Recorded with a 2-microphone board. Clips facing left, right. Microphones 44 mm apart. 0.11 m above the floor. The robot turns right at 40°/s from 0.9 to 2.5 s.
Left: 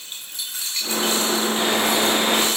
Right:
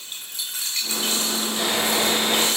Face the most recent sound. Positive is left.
turn(degrees=75)